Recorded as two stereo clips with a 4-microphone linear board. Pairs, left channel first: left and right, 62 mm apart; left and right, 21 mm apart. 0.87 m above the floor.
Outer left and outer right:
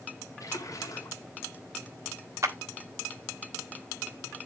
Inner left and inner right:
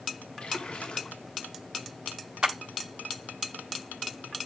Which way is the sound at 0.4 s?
60° left (ahead or behind).